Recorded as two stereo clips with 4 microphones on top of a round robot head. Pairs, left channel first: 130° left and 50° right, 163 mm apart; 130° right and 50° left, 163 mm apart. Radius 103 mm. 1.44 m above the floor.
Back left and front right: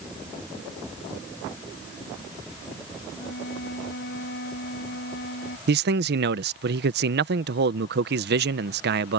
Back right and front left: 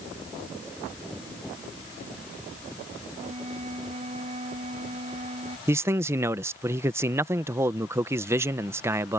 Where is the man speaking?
25° right.